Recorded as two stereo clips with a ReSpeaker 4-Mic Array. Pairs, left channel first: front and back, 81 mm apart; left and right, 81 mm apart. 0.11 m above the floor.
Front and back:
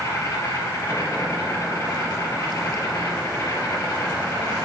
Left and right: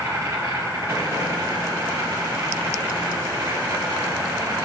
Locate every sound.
0.0 s an insect: 45° right, 3 m